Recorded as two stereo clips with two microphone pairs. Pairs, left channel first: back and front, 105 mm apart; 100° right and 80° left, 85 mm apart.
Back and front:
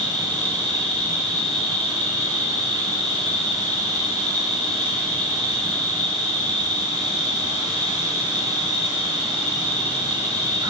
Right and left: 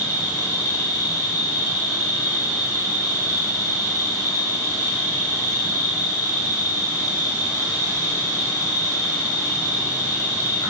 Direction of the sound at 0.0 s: 50° right.